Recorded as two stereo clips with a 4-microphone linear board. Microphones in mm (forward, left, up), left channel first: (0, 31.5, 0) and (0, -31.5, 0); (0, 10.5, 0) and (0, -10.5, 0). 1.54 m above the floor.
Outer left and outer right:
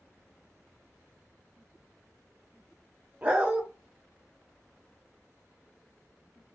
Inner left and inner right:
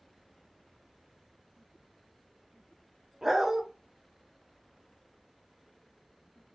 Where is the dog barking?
20° right (ahead or behind), 0.9 m.